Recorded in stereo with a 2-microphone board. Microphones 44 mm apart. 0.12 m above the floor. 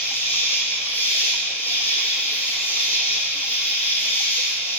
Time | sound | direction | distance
0.0 | an insect | 40° left (ahead or behind) | 2 m